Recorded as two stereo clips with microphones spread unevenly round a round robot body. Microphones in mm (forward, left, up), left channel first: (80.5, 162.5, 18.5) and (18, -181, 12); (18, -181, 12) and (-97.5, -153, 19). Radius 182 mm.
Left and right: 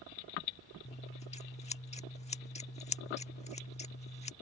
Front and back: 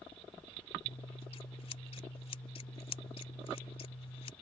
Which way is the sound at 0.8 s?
10° left.